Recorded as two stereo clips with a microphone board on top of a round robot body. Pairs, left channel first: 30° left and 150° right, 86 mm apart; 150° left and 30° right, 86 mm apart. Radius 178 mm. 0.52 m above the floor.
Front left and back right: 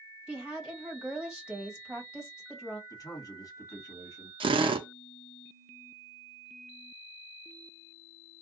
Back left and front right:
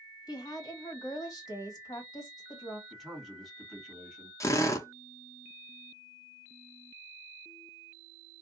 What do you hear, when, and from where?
0.3 s a woman speaking: 130° left, 1.7 m
2.9 s a man speaking: 55° left, 1.8 m
4.4 s a drill: 155° right, 0.7 m